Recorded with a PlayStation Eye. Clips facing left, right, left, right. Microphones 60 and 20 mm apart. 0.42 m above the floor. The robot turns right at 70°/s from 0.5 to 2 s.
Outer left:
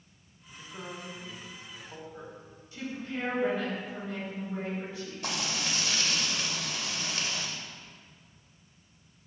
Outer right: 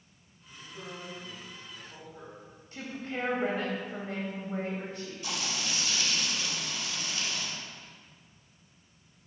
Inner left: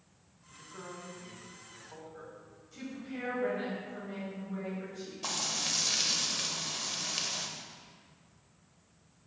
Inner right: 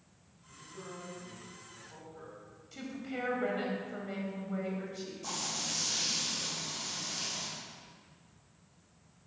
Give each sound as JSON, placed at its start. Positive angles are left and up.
{"t": 0.5, "sound": "a man speaking", "azimuth_deg": 35, "distance_m": 2.0}
{"t": 2.7, "sound": "a woman speaking", "side_deg": -50, "distance_m": 1.7}
{"t": 5.2, "sound": "frying", "side_deg": 60, "distance_m": 1.0}